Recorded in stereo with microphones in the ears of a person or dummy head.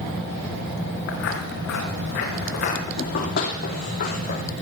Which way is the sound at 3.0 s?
55° left (ahead or behind).